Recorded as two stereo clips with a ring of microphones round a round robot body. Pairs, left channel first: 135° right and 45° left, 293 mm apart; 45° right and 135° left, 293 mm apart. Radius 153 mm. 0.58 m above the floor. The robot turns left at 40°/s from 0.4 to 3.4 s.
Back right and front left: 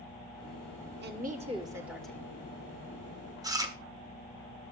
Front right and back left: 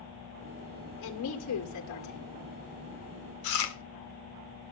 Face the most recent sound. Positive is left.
turn(degrees=-30)